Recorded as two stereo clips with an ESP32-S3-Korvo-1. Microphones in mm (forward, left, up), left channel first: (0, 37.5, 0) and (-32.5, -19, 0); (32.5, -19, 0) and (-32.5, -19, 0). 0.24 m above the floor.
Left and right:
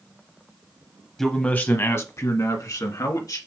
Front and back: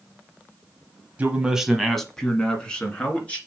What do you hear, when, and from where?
1.2 s a man speaking: 140° left, 1.0 m; by 3.4 s 70° left, 2.5 m